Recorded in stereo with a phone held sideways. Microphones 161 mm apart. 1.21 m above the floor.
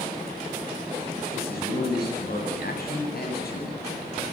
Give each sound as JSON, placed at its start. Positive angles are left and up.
{"t": 1.3, "sound": "a man speaking", "side_deg": 75, "distance_m": 8.0}